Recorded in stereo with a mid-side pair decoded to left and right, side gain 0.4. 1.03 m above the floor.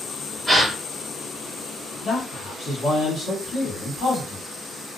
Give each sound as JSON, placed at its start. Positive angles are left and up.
{"t": 0.5, "sound": "a gasp", "azimuth_deg": -10, "distance_m": 1.3}
{"t": 2.0, "sound": "a man speaking", "azimuth_deg": 65, "distance_m": 1.7}